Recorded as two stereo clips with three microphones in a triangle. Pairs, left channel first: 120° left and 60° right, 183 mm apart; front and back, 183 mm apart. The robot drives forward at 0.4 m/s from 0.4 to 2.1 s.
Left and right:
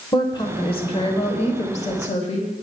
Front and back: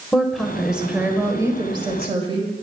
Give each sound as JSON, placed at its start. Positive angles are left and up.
{"t": 0.1, "sound": "a woman speaking", "azimuth_deg": 85, "distance_m": 1.1}